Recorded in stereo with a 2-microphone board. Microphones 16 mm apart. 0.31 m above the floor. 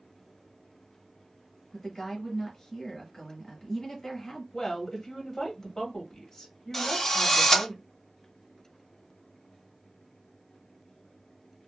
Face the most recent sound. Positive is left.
turn(degrees=25)  # may be behind; listen again after turning